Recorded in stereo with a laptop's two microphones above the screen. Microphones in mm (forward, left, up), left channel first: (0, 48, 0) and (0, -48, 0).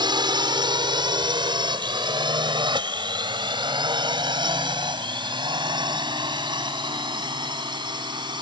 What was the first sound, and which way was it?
A drone, 50° right (ahead or behind).